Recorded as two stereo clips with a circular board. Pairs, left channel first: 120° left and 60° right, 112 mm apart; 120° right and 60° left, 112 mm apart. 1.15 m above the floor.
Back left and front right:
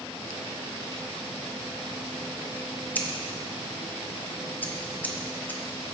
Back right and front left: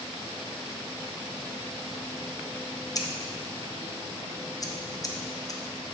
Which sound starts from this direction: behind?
Scissors, at 3.0 s.